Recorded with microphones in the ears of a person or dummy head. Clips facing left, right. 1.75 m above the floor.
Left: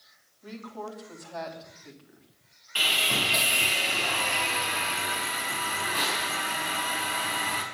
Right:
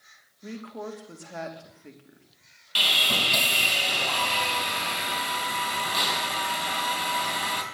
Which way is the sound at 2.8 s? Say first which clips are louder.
Right 1 dB; 50° right (ahead or behind).